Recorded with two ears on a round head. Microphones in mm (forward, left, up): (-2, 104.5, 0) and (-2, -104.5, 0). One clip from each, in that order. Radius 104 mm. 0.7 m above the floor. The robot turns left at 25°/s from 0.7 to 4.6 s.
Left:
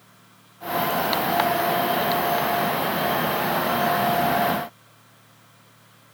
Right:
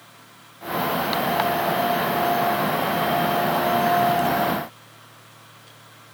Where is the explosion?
I don't hear an explosion.